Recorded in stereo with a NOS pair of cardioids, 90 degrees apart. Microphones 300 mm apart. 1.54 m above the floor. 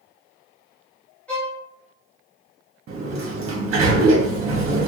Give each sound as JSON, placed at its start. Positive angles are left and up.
{"t": 1.3, "sound": "a violin", "azimuth_deg": 5, "distance_m": 1.1}
{"t": 2.9, "sound": "a sliding door", "azimuth_deg": -50, "distance_m": 1.0}